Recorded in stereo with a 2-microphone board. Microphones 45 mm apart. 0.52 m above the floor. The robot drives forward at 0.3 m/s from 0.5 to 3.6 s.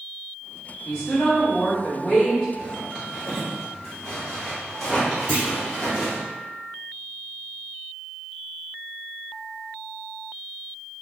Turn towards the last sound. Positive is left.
turn(degrees=30)  # may be behind; listen again after turning